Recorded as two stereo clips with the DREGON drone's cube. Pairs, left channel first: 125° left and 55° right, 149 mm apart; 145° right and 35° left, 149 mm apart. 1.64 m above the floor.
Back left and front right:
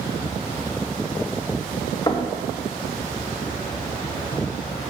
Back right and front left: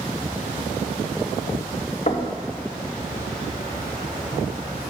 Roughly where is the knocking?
Behind.